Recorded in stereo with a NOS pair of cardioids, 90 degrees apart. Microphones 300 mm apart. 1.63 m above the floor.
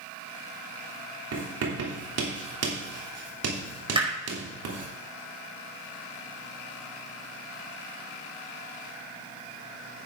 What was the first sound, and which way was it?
Writing, 60° right.